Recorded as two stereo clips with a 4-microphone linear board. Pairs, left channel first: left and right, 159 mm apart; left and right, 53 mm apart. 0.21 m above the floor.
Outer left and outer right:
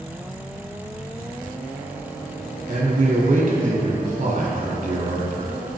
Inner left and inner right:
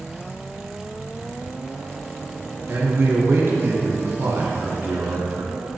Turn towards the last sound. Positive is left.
turn(degrees=-55)  # may be behind; listen again after turning